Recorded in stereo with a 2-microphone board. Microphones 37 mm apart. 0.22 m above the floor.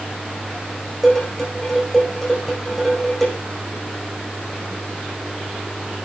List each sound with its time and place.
1.0 s dishes clattering: 5° left (ahead or behind), 8 m